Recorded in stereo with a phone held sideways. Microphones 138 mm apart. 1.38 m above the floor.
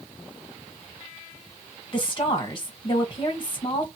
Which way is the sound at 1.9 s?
35° left (ahead or behind).